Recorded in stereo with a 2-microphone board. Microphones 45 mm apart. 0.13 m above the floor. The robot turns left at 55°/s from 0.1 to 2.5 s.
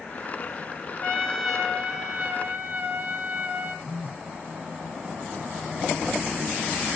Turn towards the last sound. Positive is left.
turn(degrees=-10)  # may be behind; listen again after turning